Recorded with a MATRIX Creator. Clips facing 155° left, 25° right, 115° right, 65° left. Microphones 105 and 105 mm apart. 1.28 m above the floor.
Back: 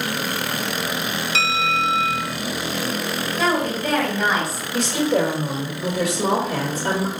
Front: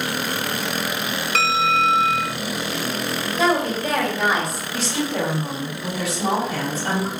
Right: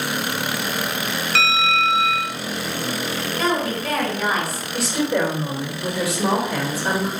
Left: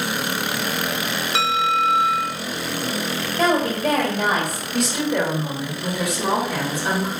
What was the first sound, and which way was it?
A bell, straight ahead.